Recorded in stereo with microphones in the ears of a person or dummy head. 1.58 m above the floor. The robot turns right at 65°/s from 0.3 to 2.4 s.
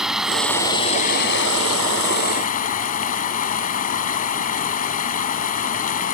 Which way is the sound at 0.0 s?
5° right.